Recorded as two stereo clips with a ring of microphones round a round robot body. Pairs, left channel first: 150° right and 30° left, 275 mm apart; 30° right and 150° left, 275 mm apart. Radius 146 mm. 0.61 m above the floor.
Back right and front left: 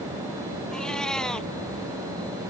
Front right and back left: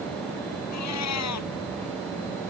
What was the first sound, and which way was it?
A cat meowing, 60° right.